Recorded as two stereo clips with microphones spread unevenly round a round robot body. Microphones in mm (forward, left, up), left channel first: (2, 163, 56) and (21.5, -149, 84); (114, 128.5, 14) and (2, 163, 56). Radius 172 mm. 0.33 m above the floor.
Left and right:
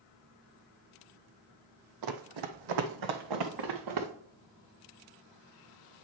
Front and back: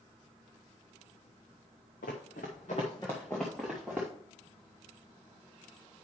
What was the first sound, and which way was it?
Running footsteps, 65° right.